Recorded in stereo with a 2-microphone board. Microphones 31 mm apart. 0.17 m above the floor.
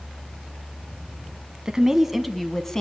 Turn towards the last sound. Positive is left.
turn(degrees=15)  # may be behind; listen again after turning